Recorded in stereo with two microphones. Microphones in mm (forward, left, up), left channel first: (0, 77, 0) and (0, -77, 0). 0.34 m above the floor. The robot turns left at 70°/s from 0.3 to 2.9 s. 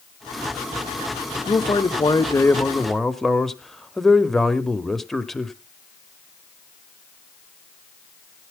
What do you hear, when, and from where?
1.5 s a man speaking: 105° left, 1.0 m; by 5.5 s 5° left, 1.0 m